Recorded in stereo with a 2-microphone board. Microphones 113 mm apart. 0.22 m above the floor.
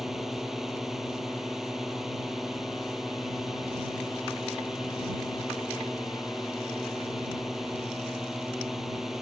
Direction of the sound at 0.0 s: 5° right (ahead or behind).